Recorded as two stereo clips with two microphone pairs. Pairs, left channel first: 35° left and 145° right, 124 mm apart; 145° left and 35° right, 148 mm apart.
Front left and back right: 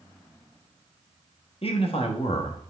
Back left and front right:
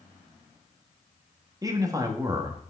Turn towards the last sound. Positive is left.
turn(degrees=25)